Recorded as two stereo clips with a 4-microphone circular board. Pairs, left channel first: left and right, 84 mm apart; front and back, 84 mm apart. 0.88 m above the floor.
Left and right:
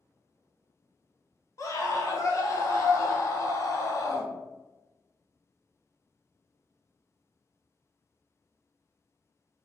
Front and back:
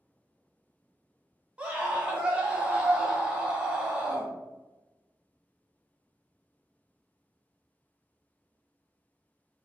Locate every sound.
1.6 s a scream: 110° left, 0.7 m